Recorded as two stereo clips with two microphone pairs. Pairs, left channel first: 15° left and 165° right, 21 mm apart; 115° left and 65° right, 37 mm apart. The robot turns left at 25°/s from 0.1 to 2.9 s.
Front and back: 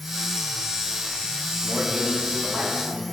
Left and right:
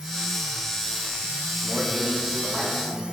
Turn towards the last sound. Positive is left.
turn(degrees=-145)